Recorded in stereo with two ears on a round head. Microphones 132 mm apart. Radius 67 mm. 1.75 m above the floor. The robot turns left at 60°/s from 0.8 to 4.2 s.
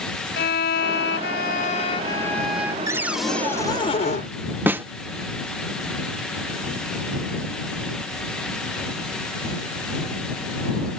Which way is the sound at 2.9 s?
160° right.